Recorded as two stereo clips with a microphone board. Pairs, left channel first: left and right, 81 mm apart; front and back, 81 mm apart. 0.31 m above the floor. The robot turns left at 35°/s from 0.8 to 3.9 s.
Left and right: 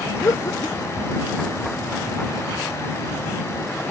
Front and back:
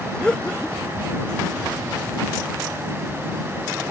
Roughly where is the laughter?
Left.